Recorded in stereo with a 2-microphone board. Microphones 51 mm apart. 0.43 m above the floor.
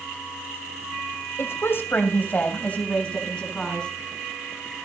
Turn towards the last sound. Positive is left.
turn(degrees=15)  # may be behind; listen again after turning